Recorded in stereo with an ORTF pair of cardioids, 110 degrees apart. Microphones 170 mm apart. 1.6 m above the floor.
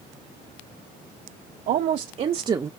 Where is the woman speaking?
60° right, 0.9 m; by 2.7 s 15° right, 0.5 m.